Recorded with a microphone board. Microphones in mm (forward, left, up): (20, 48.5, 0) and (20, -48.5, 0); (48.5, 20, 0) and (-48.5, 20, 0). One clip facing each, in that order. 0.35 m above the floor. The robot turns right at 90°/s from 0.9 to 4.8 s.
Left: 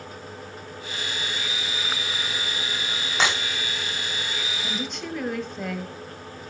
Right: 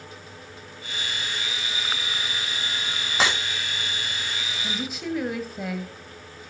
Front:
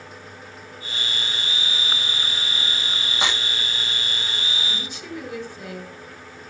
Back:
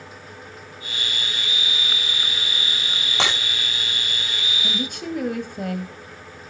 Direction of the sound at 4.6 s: 170° left.